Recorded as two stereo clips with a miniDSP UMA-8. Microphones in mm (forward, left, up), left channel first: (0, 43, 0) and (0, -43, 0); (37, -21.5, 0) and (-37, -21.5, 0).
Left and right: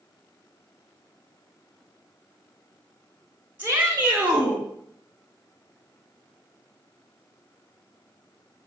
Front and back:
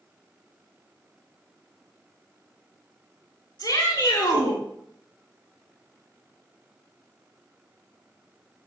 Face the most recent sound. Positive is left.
turn(degrees=-15)